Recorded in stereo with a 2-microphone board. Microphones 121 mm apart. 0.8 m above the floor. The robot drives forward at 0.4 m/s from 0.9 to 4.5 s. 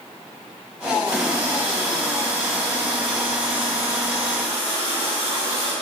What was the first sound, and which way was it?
A running tap, 30° right (ahead or behind).